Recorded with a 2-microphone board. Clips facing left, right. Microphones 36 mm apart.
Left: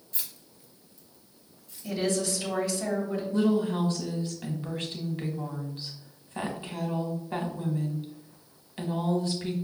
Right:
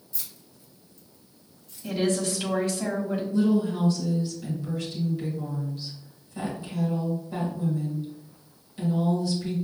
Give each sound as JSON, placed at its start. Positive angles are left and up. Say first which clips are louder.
{"t": 0.1, "sound": "keys jangling", "louder": "left 1 dB", "side_deg": 45, "distance_m": 0.9}
{"t": 1.8, "sound": "a woman speaking", "louder": "right 3 dB", "side_deg": -45, "distance_m": 1.5}
{"t": 3.3, "sound": "a woman speaking", "louder": "right 1 dB", "side_deg": 45, "distance_m": 1.0}